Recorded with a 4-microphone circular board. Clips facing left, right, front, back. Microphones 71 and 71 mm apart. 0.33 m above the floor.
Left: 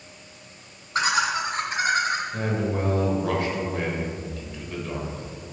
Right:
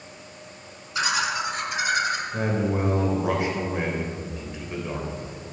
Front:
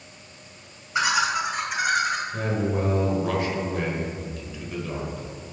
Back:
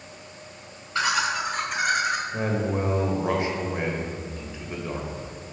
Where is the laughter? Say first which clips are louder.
Left 2 dB, front 2 dB; 70° left, 2 m; by 2.2 s 100° left, 1.6 m.